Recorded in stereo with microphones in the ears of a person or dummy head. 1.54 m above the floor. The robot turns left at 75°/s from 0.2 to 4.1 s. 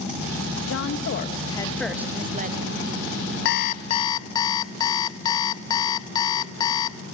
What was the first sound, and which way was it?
A woman speaking, 90° left.